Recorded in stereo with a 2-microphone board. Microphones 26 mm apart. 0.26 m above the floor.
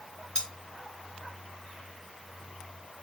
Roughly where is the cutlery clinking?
Left.